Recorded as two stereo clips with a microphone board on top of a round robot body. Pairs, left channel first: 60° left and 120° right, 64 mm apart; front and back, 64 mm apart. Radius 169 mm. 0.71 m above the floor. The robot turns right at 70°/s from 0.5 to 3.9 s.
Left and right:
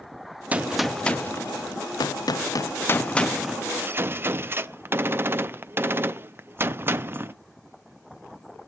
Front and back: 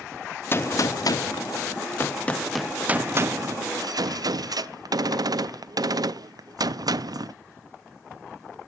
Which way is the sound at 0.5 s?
50° right.